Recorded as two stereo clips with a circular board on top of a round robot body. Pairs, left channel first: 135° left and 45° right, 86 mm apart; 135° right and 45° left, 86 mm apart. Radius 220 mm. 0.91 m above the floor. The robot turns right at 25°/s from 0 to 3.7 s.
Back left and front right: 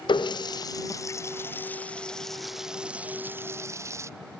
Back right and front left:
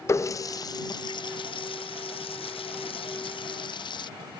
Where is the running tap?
165° left; by 4.1 s 105° right.